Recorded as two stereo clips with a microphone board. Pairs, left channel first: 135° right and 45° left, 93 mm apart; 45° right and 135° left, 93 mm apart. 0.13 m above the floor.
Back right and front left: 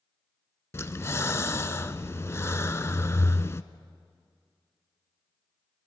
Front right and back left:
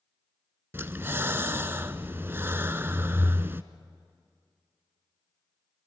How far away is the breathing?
About 0.6 m.